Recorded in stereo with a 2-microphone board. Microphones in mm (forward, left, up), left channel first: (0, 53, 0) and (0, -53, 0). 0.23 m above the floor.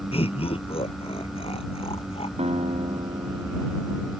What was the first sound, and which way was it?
Laughter, 60° left (ahead or behind).